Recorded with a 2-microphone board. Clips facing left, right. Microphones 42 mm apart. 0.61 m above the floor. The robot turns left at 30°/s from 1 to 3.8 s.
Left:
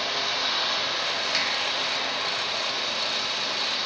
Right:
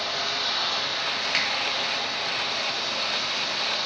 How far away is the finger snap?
About 0.7 m.